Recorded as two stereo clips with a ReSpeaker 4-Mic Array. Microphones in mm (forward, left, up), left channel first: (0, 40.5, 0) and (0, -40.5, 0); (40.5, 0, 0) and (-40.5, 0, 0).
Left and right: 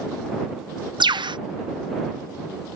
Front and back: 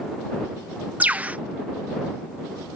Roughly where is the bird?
Right.